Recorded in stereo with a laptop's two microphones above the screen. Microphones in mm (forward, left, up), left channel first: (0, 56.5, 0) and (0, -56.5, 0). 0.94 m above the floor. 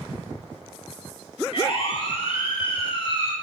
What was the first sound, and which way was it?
A siren, 60° left (ahead or behind).